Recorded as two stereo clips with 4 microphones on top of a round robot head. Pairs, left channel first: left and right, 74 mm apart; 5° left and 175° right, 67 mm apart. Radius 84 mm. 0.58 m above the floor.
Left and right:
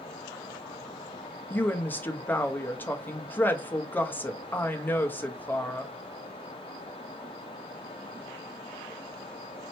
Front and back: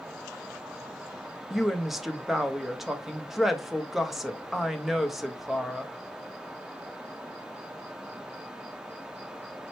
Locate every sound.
1.5 s a woman speaking: 100° left, 0.8 m